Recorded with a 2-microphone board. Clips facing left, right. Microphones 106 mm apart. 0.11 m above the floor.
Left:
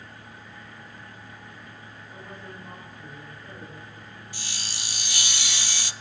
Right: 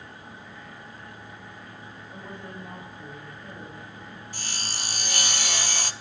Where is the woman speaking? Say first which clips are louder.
Right 2 dB; 15° right (ahead or behind), 9.5 m.